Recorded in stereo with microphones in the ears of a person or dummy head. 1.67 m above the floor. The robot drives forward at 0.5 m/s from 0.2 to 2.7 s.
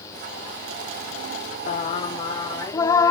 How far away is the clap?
I don't hear a clap.